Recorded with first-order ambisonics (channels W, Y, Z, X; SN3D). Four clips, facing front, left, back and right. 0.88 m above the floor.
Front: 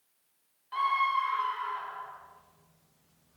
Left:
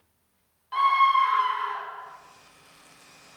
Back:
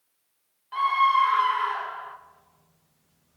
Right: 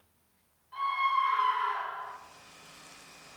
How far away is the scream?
About 0.6 m.